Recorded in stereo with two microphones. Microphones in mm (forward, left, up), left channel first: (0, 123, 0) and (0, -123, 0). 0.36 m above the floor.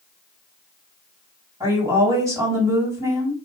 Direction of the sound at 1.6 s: 15° right (ahead or behind).